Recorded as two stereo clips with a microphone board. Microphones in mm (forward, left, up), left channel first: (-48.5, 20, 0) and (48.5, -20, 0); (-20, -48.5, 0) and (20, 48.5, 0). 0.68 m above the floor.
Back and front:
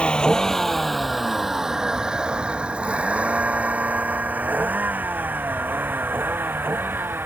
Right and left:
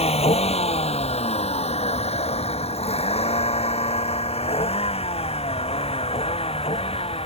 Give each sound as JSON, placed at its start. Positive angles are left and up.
{"t": 0.0, "sound": "a vehicle", "azimuth_deg": -120}